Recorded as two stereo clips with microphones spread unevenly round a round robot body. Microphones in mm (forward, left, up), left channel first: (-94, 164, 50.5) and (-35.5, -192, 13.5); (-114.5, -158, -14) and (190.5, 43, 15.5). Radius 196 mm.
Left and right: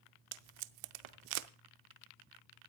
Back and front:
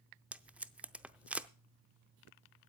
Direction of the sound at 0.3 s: 55° right.